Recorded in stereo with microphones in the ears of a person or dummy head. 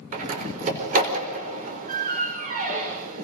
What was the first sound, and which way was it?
A door slam, 40° right (ahead or behind).